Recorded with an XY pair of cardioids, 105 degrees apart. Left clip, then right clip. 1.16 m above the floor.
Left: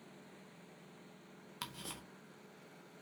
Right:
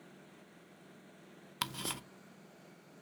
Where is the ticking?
55° right, 0.6 m.